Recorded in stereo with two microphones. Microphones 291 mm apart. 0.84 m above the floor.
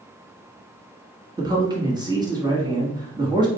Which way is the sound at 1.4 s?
15° right (ahead or behind).